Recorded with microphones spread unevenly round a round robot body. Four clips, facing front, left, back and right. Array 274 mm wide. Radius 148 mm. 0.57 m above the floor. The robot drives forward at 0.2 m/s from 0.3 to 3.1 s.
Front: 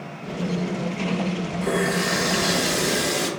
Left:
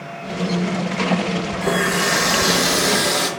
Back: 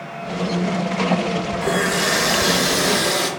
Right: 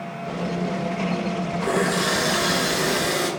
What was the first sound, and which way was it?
A running tap, 125° left.